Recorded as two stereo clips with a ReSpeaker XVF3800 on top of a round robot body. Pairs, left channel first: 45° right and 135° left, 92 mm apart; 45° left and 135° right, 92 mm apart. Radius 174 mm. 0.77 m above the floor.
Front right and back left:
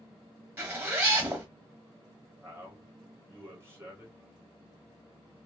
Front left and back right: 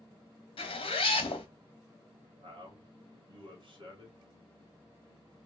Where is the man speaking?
160° right, 1.9 m.